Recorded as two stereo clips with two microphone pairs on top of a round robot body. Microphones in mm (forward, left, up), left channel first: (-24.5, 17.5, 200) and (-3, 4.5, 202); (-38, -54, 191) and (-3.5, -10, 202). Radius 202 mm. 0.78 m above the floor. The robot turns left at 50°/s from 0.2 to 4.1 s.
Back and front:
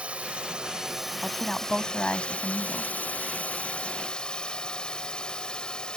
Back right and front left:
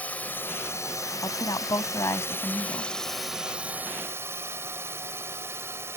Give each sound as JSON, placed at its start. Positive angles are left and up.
{"t": 0.0, "sound": "a drone", "azimuth_deg": -70}
{"t": 1.2, "sound": "a woman speaking", "azimuth_deg": -120}